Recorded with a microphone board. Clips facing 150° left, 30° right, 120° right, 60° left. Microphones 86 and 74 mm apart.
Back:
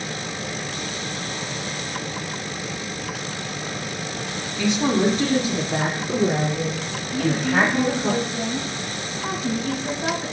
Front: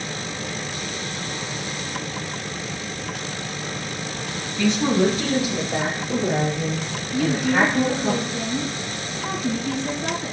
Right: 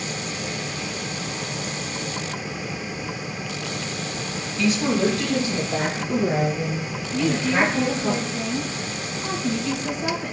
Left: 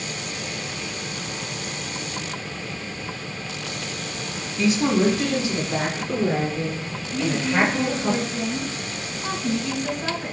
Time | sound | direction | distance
4.6 | a woman speaking | 85° left | 1.1 m
7.1 | a woman speaking | 125° left | 3 m